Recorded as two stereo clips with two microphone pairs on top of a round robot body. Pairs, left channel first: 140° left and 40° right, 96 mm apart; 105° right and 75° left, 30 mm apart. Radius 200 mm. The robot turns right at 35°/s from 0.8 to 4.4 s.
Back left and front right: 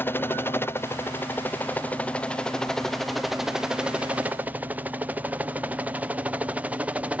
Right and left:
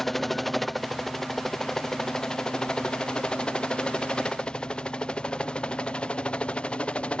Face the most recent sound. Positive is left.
turn(degrees=-100)